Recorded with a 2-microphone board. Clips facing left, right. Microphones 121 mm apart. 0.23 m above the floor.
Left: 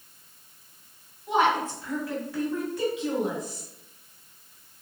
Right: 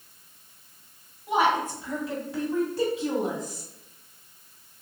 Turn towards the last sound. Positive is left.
turn(degrees=-45)  # may be behind; listen again after turning